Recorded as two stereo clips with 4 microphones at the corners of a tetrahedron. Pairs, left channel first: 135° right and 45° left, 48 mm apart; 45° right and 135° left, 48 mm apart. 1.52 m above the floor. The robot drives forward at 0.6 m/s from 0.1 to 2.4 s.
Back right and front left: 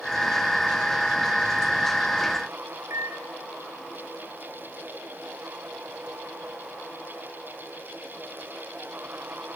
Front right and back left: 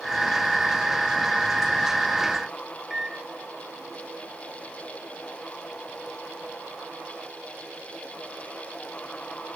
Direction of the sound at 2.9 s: 50° left.